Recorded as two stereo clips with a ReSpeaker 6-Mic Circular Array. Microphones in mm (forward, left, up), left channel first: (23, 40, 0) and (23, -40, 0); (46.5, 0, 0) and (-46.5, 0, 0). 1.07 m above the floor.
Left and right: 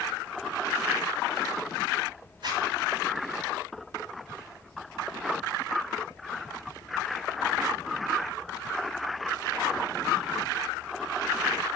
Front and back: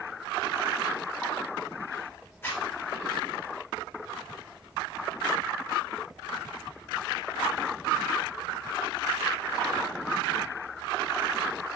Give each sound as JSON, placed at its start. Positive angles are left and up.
{"t": 2.4, "sound": "a zipper", "azimuth_deg": -65, "distance_m": 3.0}